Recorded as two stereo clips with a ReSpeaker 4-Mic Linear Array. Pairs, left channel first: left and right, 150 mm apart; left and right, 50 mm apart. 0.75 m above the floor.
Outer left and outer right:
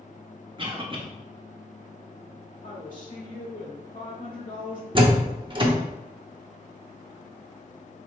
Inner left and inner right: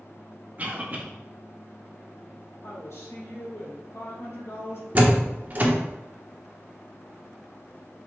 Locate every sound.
0.6 s a cough: 35° right (ahead or behind), 1.1 m
2.6 s a woman speaking: 65° left (ahead or behind), 1.7 m
5.0 s a door slam: 35° right (ahead or behind), 0.8 m